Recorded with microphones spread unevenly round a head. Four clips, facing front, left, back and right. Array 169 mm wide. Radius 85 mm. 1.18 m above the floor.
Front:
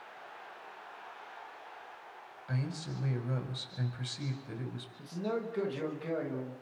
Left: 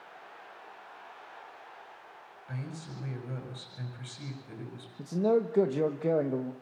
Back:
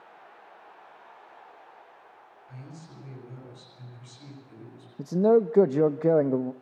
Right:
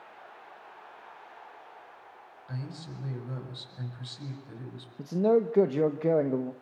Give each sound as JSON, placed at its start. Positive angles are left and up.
{"t": 2.5, "sound": "a man speaking", "azimuth_deg": 0, "distance_m": 6.5}
{"t": 5.0, "sound": "a man speaking", "azimuth_deg": -170, "distance_m": 1.1}